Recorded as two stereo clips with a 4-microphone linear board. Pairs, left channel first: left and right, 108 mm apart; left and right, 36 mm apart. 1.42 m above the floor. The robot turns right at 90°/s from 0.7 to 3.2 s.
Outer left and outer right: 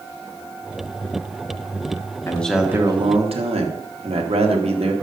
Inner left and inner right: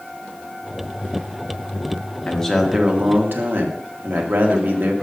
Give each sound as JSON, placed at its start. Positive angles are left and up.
{"t": 2.3, "sound": "a man speaking", "azimuth_deg": 155, "distance_m": 1.3}